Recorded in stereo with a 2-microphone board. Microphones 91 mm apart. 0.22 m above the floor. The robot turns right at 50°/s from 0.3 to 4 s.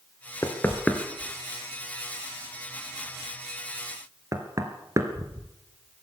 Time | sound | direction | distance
0.4 | knocking | 35° left (ahead or behind) | 3 m